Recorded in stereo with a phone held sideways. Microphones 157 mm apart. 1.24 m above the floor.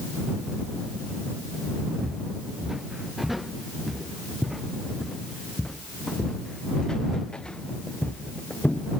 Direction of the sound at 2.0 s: 5° right (ahead or behind).